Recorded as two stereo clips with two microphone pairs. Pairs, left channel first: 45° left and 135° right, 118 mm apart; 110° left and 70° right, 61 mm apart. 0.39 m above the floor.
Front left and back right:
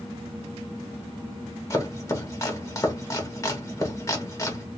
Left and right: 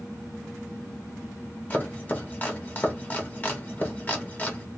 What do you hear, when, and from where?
1.7 s chopping: 75° left, 1.0 m